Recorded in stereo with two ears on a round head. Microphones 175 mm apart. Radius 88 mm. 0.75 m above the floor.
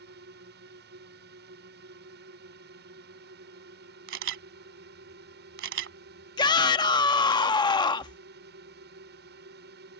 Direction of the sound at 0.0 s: 55° right (ahead or behind).